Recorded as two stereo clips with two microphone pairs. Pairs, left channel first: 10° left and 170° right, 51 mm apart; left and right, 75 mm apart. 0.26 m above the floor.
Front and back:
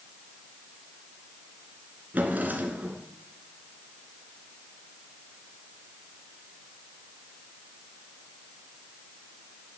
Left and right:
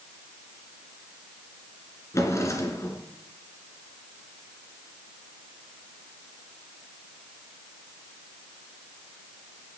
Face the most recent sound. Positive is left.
turn(degrees=135)